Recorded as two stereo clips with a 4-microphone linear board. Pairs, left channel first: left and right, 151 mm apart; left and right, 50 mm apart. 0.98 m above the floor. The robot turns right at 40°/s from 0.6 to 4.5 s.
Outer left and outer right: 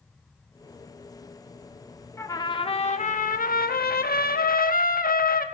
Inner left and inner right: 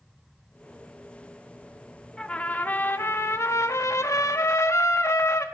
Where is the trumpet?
20° left, 0.9 m; by 5.5 s 110° left, 0.9 m.